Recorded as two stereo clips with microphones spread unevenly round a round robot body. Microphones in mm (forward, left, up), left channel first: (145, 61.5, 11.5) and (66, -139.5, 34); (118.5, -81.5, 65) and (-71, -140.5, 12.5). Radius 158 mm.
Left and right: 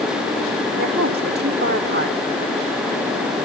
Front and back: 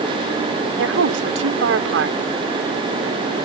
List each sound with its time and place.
0.8 s a woman speaking: 170° right